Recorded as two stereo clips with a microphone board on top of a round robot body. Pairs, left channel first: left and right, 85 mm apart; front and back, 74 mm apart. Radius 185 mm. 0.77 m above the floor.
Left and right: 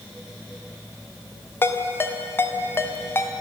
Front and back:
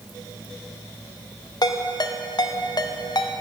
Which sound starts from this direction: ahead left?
A ringtone, at 1.6 s.